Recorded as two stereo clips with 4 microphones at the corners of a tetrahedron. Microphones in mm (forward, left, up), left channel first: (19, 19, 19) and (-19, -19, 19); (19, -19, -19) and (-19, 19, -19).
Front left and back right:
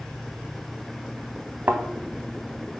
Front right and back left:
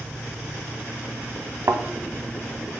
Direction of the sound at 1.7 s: 160° left.